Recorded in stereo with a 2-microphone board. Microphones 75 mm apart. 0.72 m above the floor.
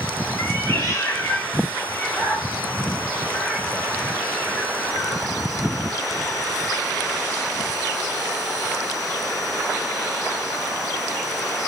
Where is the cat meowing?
50° left (ahead or behind), 1.4 m; by 5.3 s 15° left (ahead or behind), 3.5 m.